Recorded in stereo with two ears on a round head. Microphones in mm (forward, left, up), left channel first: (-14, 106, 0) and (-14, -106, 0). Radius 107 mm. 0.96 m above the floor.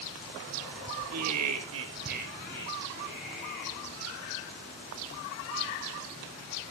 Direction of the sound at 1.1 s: 75° right (ahead or behind).